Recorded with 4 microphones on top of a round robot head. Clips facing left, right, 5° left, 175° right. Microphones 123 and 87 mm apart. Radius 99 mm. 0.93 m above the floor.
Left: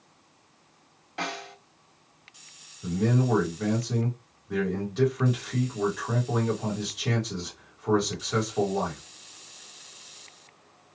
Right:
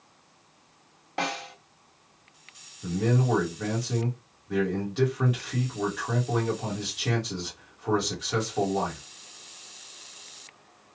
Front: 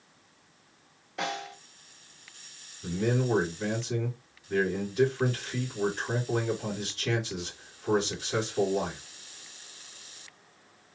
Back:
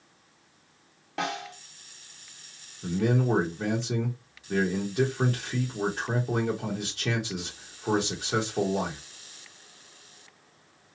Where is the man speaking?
Straight behind, 1.3 m.